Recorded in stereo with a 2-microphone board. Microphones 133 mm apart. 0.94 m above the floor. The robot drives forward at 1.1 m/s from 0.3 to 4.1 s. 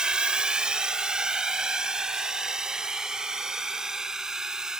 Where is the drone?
5° right (ahead or behind).